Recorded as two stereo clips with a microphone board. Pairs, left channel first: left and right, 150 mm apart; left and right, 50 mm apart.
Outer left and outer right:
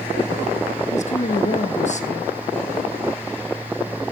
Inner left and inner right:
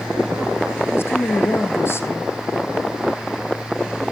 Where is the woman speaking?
50° left (ahead or behind), 2.5 m.